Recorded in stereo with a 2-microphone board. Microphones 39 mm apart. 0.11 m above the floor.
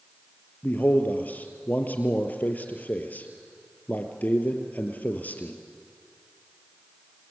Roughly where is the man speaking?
Left.